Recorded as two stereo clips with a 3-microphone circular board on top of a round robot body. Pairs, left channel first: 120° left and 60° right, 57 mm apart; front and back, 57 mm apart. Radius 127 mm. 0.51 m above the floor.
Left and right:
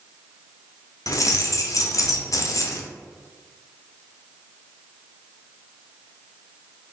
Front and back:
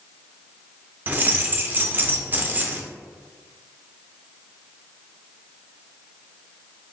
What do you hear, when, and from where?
1.1 s keys jangling: 125° left, 0.7 m